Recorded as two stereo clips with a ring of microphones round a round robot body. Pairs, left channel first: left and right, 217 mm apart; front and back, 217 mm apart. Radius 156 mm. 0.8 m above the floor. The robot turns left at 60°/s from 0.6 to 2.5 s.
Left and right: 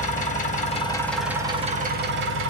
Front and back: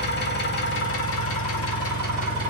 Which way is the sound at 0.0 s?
35° left.